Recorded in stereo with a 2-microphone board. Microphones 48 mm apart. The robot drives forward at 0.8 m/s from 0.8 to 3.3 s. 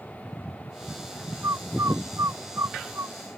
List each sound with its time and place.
1.4 s a bird: 85° right